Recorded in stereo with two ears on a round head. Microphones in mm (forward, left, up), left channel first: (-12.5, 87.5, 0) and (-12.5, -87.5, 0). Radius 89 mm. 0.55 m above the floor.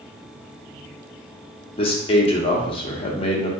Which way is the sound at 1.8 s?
30° left (ahead or behind).